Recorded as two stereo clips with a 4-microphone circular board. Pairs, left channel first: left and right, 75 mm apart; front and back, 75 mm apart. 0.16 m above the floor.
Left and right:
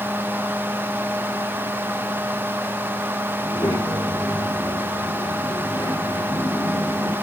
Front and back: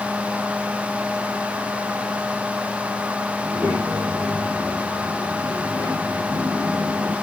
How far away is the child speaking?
About 7.5 m.